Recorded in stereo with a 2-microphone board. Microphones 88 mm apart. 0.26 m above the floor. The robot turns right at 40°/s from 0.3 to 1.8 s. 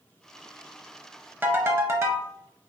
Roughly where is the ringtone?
Right.